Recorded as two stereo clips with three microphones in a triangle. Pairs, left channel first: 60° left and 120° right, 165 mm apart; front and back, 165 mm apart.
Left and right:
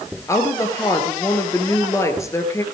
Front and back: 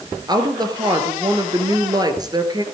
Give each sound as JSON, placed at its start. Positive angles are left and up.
{"t": 0.3, "sound": "a woman speaking", "azimuth_deg": 125, "distance_m": 1.6}